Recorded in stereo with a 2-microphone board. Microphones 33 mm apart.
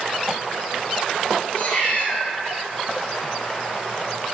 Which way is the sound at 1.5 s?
50° left (ahead or behind).